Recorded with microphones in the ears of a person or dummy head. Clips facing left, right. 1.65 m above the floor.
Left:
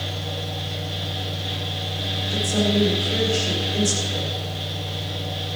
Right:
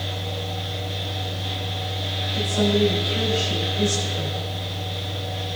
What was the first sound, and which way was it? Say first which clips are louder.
A fan: even; 5° left (ahead or behind).